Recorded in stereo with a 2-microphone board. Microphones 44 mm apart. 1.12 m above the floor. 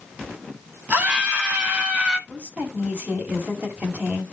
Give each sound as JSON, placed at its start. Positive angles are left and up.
{"t": 0.9, "sound": "a scream", "side_deg": -35, "distance_m": 4.5}
{"t": 2.3, "sound": "a woman speaking", "side_deg": -30, "distance_m": 6.0}